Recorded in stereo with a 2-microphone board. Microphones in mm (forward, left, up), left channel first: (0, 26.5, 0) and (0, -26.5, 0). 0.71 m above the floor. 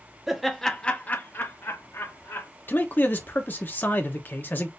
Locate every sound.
0.3 s laughter: 5° right (ahead or behind), 0.8 m; by 2.5 s 60° left (ahead or behind), 1.3 m
2.7 s a man speaking: 40° left (ahead or behind), 0.9 m